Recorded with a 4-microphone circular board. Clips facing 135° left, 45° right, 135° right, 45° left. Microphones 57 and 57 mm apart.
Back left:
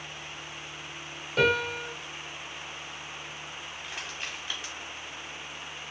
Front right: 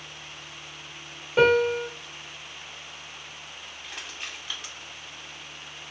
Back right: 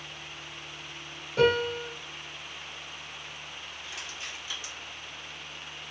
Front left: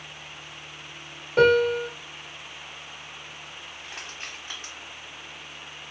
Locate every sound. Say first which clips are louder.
1.4 s a piano: front right 6 dB, front left 6 dB; 25° left, 1.2 m
3.8 s crushing: even, front left 2 dB; 50° left, 1.8 m